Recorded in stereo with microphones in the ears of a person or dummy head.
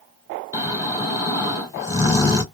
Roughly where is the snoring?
Left.